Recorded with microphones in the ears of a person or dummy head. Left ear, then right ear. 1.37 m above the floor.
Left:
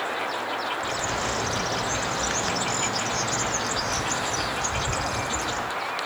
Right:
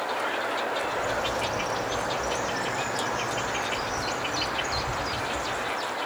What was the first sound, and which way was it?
A bird, 55° left (ahead or behind).